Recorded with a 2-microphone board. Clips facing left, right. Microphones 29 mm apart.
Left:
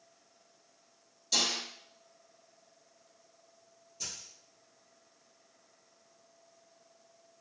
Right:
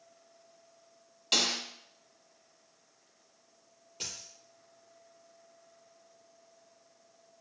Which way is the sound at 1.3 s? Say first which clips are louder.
Right 2 dB; 70° right (ahead or behind).